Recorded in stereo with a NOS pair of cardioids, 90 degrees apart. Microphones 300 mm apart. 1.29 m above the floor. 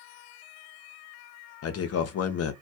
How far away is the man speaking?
About 0.6 m.